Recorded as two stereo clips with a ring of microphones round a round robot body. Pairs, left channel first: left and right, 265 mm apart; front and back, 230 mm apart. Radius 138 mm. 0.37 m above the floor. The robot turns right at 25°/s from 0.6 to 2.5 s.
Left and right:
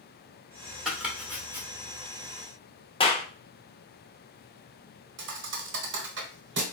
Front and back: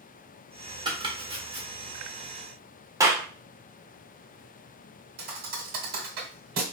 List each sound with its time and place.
0.8 s chopping: 165° right, 1.1 m; by 1.7 s 145° right, 1.1 m
3.0 s a clap: 125° left, 0.7 m
5.2 s a thud: 130° right, 0.8 m